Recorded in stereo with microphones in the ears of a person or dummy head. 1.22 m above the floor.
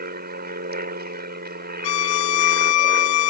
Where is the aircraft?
45° right (ahead or behind).